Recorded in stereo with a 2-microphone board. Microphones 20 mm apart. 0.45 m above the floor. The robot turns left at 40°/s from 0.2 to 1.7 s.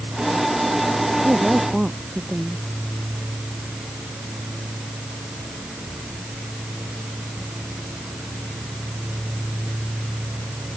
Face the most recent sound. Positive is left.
turn(degrees=-25)  # may be behind; listen again after turning